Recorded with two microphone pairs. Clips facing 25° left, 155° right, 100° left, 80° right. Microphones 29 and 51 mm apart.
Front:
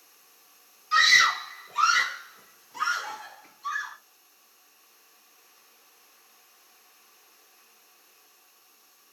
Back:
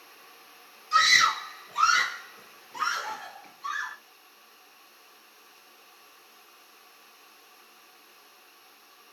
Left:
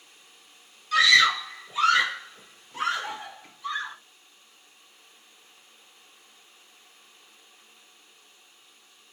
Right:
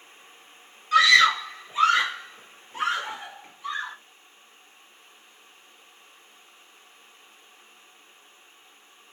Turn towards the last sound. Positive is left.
turn(degrees=-135)